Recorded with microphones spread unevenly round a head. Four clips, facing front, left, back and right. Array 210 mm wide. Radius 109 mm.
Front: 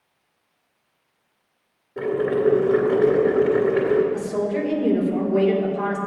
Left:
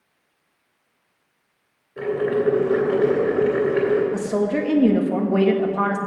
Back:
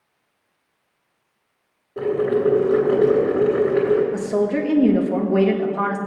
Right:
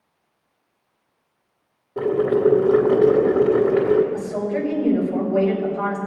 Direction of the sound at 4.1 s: 130° left.